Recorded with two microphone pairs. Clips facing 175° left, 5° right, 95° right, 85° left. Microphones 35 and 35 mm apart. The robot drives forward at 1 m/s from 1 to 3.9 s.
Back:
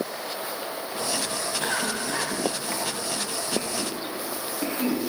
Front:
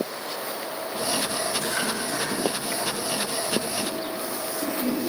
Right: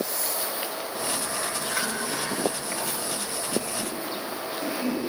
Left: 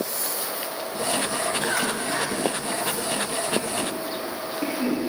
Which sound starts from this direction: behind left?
A cough, at 1.6 s.